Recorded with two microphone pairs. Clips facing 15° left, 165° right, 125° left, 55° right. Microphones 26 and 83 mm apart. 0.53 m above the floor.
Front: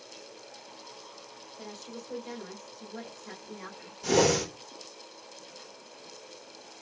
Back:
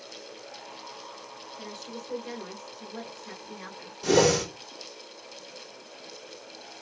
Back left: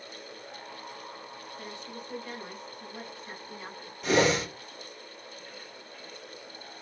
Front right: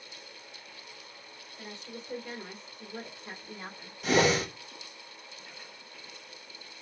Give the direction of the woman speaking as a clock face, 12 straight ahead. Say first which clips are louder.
Back 2 dB, front right 1 dB; 4 o'clock.